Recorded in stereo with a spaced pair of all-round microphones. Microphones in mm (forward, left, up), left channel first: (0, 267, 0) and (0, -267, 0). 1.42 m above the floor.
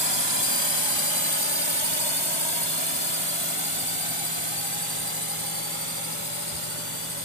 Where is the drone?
50° right (ahead or behind); by 7.2 s 70° right (ahead or behind).